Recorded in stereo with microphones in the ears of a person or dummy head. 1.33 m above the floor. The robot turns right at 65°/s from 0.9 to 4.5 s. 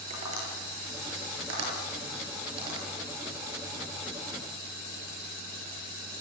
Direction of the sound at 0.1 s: 35° right (ahead or behind).